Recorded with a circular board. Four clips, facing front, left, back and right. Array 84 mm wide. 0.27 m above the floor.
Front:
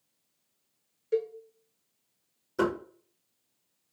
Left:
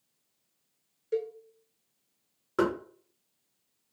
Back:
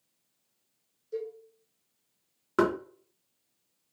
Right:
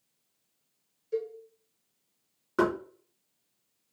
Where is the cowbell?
30° left, 0.9 m.